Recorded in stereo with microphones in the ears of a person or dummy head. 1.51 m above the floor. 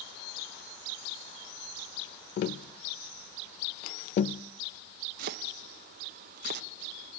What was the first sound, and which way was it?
Tapping, 45° left (ahead or behind).